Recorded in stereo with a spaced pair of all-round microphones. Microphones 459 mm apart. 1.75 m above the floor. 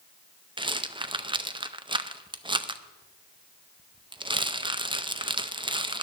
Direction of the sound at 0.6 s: 10° right (ahead or behind).